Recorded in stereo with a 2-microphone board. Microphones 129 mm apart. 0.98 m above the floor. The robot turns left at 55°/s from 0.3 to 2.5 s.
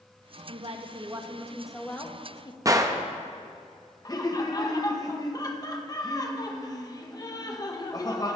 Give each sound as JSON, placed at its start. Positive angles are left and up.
{"t": 0.5, "sound": "a woman speaking", "azimuth_deg": -110, "distance_m": 1.5}
{"t": 2.6, "sound": "a gunshot", "side_deg": -25, "distance_m": 0.8}
{"t": 4.0, "sound": "laughter", "side_deg": 30, "distance_m": 1.1}